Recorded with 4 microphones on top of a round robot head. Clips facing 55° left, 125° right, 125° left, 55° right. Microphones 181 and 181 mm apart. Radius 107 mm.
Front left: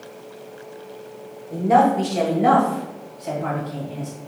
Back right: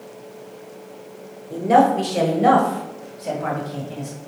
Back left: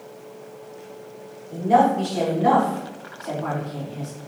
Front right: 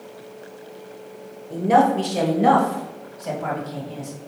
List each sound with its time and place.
1.5 s a woman speaking: 70° right, 1.9 m; by 4.1 s 85° right, 3.5 m